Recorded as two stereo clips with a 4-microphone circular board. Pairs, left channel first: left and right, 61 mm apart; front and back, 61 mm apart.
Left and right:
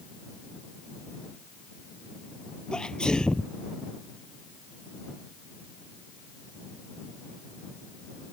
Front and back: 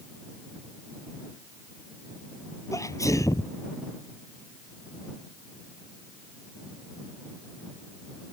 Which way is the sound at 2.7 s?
15° left.